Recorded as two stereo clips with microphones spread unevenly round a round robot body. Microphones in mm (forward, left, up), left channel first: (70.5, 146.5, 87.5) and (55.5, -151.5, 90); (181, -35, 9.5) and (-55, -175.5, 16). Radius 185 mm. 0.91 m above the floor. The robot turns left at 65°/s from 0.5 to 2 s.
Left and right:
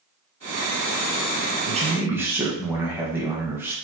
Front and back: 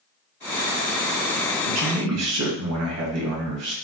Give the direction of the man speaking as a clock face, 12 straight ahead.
5 o'clock.